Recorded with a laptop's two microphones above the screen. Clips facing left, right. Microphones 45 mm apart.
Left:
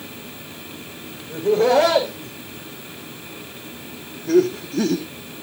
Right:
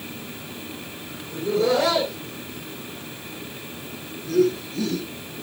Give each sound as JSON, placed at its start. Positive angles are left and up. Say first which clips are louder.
{"t": 1.3, "sound": "laughter", "louder": "left 5 dB", "side_deg": 40, "distance_m": 3.5}